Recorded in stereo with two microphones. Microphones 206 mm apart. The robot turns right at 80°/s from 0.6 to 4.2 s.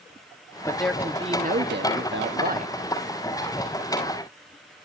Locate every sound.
0.7 s a man speaking: 160° left, 1.4 m; by 2.7 s 35° right, 1.4 m